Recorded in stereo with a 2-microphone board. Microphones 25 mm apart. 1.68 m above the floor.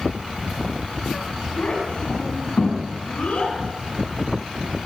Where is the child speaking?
80° left, 7 m; by 3.5 s 85° left, 8.5 m.